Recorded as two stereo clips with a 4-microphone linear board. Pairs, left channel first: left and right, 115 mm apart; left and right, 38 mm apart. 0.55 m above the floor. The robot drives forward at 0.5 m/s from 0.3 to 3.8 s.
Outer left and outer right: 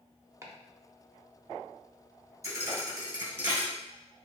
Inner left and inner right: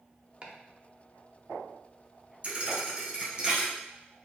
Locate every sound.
0.4 s chopping: 25° right (ahead or behind), 0.8 m
2.4 s a thud: 25° right (ahead or behind), 1.4 m; by 3.7 s 20° right (ahead or behind), 2.0 m